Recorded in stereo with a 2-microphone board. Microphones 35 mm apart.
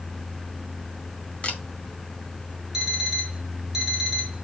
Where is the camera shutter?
30° left (ahead or behind), 2.0 m.